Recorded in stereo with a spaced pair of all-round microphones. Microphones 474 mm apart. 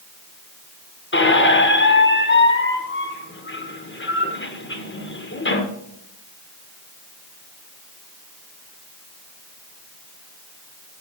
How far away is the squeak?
About 0.8 m.